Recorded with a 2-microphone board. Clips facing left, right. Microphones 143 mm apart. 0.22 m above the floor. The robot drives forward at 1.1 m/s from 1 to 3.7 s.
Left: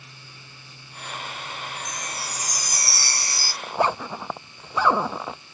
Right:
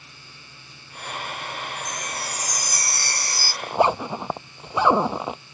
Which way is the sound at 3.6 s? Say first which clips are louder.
Right 4 dB; 20° right (ahead or behind).